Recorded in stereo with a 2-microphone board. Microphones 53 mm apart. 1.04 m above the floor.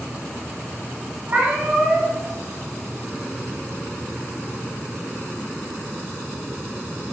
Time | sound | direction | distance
1.3 | a cat meowing | 25° right (ahead or behind) | 1.1 m